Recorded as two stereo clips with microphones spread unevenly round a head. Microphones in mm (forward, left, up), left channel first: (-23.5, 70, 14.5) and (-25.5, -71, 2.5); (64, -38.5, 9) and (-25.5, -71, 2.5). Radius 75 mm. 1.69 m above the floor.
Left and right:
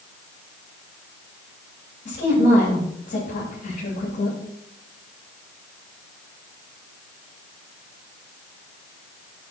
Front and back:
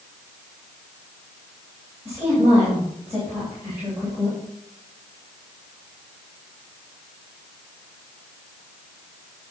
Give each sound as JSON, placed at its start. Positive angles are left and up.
{"t": 2.0, "sound": "a woman speaking", "azimuth_deg": 125, "distance_m": 3.5}